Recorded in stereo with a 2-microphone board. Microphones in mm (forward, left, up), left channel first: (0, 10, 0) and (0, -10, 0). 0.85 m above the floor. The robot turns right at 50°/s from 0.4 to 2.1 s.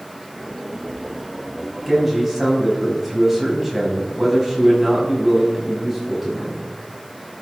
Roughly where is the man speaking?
Centre.